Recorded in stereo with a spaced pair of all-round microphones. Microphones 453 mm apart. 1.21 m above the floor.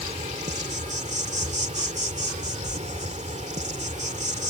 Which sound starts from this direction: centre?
An insect, at 0.0 s.